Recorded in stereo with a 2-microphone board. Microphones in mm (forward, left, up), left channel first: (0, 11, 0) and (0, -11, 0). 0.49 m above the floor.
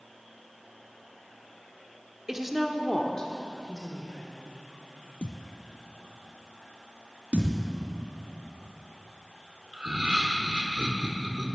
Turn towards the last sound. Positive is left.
turn(degrees=-40)  # may be behind; listen again after turning